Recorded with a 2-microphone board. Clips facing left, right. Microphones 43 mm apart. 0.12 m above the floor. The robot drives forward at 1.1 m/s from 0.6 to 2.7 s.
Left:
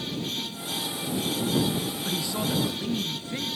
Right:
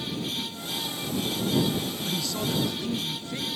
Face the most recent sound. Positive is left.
turn(degrees=15)  # may be behind; listen again after turning